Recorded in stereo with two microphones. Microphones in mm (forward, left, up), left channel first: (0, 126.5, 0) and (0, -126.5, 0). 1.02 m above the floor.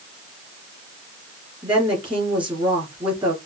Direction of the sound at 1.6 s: 20° right (ahead or behind).